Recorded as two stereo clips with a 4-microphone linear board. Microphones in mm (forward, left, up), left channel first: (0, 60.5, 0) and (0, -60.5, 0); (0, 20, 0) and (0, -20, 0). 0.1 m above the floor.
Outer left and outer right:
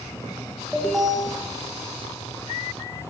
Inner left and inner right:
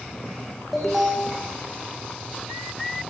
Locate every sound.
0.7 s an alarm: 5° right (ahead or behind), 7.5 m